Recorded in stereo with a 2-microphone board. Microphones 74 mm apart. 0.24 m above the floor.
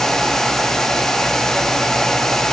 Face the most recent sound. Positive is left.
No sound to turn to.